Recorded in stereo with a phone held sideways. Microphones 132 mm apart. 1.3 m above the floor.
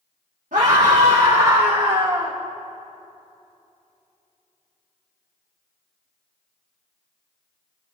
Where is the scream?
75° right (ahead or behind), 2 m; by 2.4 s 25° right (ahead or behind), 1.7 m.